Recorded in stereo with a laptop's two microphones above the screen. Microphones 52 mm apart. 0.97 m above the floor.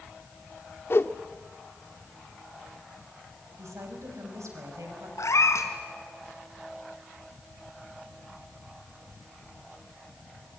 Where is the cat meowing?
70° left (ahead or behind), 2.5 m.